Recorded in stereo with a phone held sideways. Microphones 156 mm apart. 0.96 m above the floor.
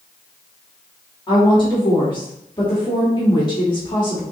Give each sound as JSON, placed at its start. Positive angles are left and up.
{"t": 1.3, "sound": "a woman speaking", "side_deg": 30, "distance_m": 1.4}